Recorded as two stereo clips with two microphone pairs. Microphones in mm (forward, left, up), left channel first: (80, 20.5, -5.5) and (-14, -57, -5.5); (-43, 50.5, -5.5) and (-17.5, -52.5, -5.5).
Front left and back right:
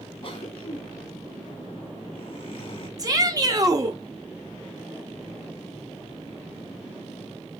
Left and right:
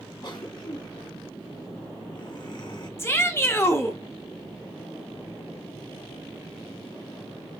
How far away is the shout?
About 0.8 m.